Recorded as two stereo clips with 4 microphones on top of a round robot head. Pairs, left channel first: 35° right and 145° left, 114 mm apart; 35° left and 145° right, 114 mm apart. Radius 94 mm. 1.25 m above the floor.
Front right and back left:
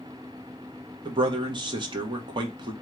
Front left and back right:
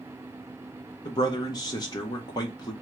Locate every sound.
1.1 s a man speaking: 95° left, 1.0 m